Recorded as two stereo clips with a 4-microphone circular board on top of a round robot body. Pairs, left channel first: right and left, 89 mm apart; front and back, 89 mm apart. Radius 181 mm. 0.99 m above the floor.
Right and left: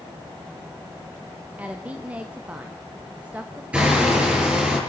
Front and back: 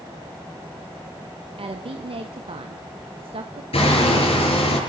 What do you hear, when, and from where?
1.6 s a woman speaking: 165° left, 1.4 m
3.7 s hammering: 15° left, 7 m